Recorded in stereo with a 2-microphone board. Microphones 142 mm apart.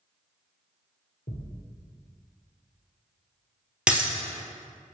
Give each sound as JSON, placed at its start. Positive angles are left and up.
{"t": 1.3, "sound": "a thud", "side_deg": 70, "distance_m": 2.5}
{"t": 3.9, "sound": "breaking glass", "side_deg": -10, "distance_m": 1.7}